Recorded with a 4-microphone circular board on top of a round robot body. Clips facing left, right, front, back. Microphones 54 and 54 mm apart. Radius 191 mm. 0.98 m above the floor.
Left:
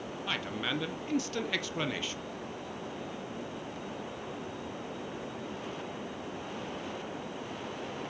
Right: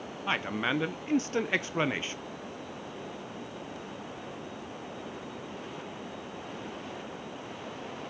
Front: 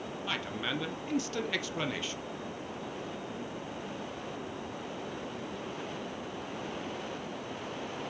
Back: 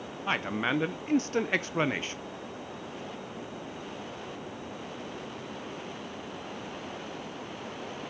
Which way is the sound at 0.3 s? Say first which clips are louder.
Right 5 dB, back 7 dB; 140° right.